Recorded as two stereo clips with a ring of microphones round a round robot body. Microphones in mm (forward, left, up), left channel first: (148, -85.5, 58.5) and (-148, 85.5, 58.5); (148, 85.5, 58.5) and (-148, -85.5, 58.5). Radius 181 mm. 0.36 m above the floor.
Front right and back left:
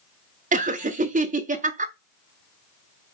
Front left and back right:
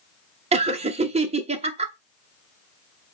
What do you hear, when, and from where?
0.5 s laughter: 170° left, 1.1 m